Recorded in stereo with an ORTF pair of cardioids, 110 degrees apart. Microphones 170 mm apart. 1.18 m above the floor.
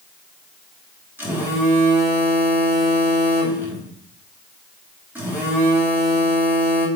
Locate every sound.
1.2 s a phone buzzing: 10° right, 3 m